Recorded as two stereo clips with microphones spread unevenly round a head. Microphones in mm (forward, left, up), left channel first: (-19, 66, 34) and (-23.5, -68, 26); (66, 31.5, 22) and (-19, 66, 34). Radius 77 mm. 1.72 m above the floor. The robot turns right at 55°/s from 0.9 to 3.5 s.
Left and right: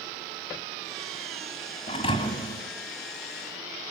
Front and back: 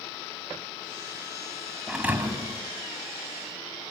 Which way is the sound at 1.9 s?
95° left.